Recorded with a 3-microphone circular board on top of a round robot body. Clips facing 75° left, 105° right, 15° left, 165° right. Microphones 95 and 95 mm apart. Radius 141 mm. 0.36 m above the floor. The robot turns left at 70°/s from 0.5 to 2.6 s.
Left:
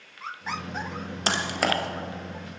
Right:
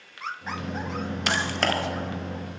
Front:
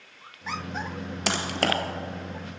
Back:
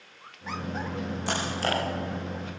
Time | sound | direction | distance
1.3 | typing on a keyboard | 15° left | 2.5 m